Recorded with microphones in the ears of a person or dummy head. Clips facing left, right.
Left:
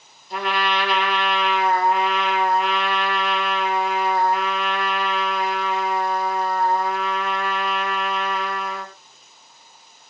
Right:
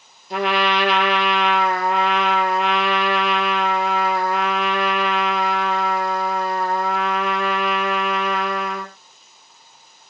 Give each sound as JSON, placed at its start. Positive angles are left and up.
{"t": 0.3, "sound": "a trumpet", "side_deg": -60, "distance_m": 4.5}